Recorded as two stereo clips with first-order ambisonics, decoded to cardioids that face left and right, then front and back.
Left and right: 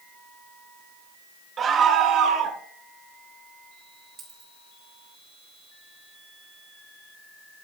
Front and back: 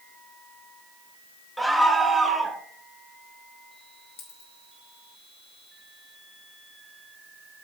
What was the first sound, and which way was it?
A scream, 85° right.